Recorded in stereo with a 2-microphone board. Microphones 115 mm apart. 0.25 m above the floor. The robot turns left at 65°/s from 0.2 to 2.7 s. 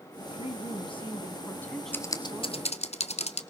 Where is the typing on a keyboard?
20° left (ahead or behind), 1.3 m; by 3.4 s 65° left (ahead or behind), 1.3 m.